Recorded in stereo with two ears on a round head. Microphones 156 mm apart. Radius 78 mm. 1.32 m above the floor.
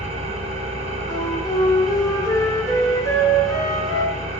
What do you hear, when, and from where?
0.0 s an engine running: 35° right (ahead or behind), 1.8 m
1.1 s a flute: 20° left (ahead or behind), 1.4 m